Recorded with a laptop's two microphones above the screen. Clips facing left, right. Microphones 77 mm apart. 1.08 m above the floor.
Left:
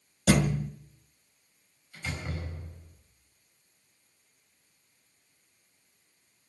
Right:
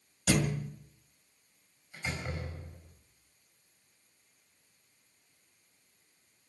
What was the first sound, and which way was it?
A thud, 65° left (ahead or behind).